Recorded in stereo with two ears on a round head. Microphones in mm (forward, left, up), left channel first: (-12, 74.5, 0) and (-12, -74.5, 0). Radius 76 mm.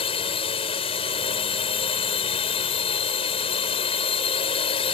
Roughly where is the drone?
Left.